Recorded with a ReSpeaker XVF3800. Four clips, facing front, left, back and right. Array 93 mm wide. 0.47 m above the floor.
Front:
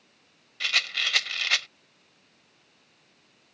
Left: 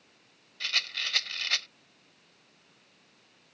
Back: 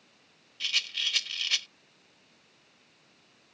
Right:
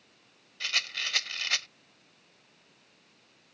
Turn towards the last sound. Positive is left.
turn(degrees=-5)